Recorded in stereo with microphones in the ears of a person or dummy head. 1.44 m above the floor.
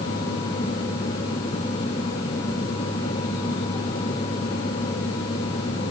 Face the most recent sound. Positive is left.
No sound to turn to.